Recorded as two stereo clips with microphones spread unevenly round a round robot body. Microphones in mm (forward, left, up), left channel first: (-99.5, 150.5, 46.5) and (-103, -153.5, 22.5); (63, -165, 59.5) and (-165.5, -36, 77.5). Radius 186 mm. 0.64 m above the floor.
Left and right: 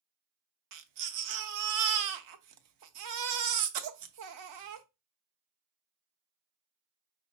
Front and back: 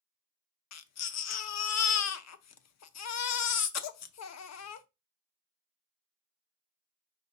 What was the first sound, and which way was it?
A baby crying, 55° right.